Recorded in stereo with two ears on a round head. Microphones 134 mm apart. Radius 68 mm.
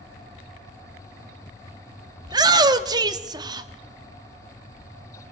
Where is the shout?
25° right (ahead or behind), 1.3 m.